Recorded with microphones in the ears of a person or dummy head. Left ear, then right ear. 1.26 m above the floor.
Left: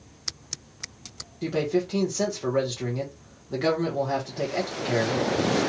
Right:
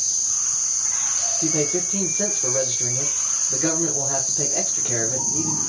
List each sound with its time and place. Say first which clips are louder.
1.4 s a man speaking: right 3 dB; 10° left (ahead or behind), 1.2 m